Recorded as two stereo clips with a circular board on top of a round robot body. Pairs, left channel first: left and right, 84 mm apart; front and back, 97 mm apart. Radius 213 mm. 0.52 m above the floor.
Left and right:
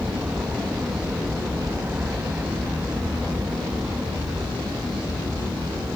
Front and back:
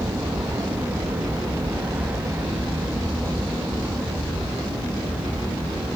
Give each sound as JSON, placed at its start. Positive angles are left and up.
{"t": 0.0, "sound": "an aircraft", "azimuth_deg": -150}